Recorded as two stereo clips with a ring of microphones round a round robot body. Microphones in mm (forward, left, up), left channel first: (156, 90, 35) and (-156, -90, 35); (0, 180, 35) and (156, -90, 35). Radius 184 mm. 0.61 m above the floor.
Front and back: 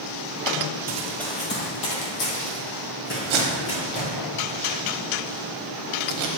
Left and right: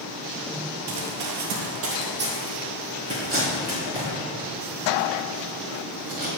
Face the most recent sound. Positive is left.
turn(degrees=-125)